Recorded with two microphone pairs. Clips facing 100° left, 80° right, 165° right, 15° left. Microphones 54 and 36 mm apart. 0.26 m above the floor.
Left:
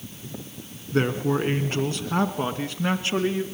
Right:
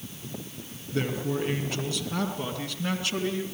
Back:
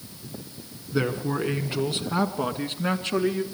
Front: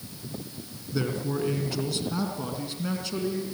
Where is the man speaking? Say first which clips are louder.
Left 6 dB, back 3 dB; 140° left, 3.5 m; by 3.4 s 160° left, 4 m.